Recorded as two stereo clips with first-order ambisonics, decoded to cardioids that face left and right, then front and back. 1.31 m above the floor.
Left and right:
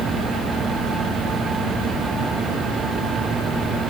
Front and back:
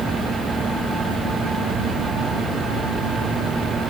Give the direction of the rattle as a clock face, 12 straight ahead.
I don't hear a rattle.